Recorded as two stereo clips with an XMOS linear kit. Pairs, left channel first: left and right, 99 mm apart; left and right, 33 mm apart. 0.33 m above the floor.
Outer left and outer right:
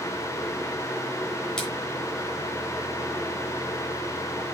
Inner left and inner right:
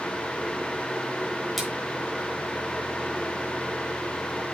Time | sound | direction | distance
1.6 | a splash | 5° left (ahead or behind) | 4 m